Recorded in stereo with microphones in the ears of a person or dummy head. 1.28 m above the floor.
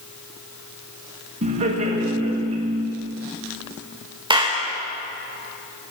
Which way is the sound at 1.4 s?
35° right (ahead or behind).